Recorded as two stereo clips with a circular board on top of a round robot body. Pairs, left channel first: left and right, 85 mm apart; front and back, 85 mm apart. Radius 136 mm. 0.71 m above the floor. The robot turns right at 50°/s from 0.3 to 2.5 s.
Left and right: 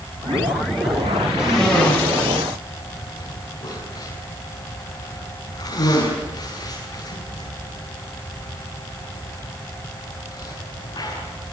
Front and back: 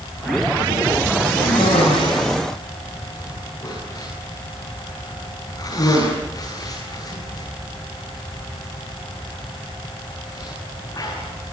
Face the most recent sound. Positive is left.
turn(degrees=50)